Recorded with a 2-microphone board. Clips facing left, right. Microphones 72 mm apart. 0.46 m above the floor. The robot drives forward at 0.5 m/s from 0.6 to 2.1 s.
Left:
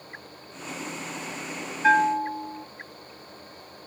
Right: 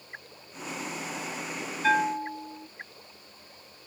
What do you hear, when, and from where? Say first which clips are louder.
1.8 s a bell: left 5 dB; 25° left (ahead or behind), 0.8 m